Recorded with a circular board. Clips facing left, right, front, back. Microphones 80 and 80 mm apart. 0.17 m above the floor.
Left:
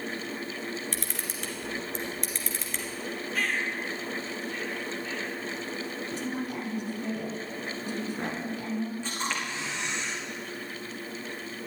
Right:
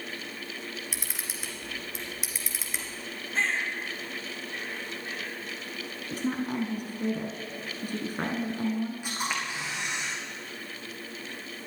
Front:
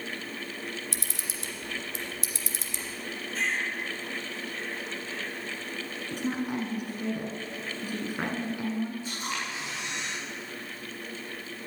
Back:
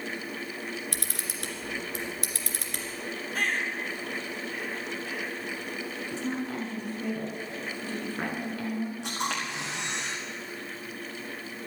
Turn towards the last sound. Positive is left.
turn(degrees=-170)